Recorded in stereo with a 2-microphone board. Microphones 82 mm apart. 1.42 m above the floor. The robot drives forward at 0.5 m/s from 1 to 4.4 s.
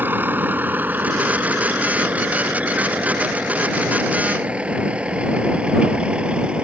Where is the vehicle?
20° right (ahead or behind); by 6.6 s 10° right (ahead or behind).